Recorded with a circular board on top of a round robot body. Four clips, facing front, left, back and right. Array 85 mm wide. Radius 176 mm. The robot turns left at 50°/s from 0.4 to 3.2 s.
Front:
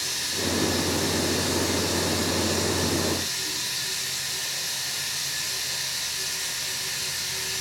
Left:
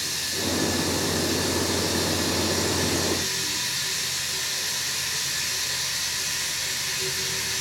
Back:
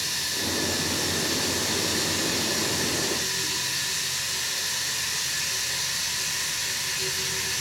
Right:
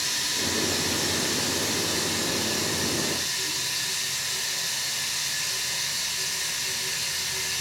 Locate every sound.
0.0 s running water: 100° right, 2.5 m; by 7.6 s 120° left, 2.5 m